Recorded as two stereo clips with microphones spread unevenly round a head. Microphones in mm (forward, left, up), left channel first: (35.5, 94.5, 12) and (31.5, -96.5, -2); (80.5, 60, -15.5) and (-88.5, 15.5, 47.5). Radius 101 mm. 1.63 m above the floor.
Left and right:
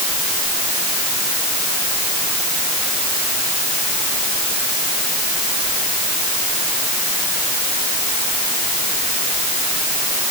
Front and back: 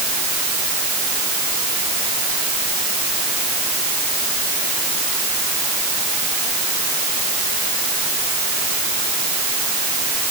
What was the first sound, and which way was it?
Only background noise.